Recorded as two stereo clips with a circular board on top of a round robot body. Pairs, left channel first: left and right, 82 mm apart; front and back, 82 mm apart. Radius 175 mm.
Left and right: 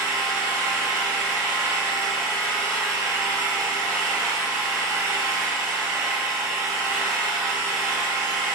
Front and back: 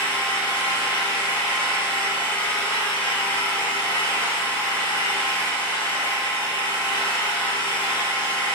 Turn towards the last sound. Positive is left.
turn(degrees=-30)